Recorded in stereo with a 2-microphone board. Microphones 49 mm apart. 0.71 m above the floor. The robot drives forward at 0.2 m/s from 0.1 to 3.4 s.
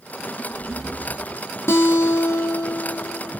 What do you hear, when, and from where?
1.7 s a guitar: 65° left (ahead or behind), 0.5 m; by 3.3 s 45° left (ahead or behind), 0.7 m